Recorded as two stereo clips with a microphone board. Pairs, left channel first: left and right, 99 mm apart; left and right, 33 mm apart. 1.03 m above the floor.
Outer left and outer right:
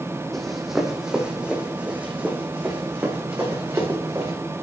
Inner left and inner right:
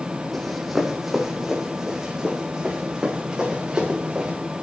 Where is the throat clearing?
I don't hear throat clearing.